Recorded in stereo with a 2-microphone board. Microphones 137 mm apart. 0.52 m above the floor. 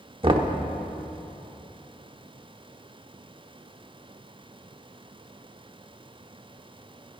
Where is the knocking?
40° right (ahead or behind), 1.0 m.